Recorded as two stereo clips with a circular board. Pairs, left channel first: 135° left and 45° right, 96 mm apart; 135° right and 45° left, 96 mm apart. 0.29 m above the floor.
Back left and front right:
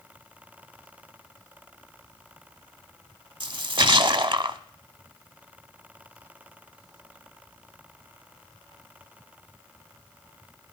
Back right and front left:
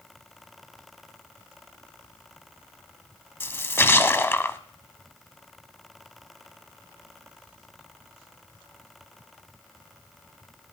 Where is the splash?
70° right, 0.7 m.